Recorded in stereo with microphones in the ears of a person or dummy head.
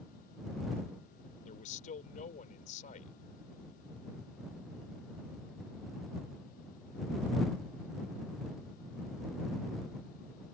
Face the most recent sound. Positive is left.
turn(degrees=40)  # may be behind; listen again after turning